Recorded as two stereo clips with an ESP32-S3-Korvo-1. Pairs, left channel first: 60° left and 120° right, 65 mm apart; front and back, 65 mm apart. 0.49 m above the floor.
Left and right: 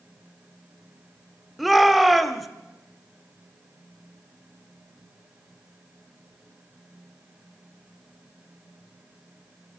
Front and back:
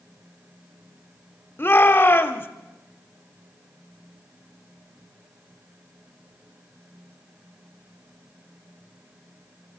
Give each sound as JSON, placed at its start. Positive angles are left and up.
{"t": 1.6, "sound": "a shout", "azimuth_deg": -30, "distance_m": 1.1}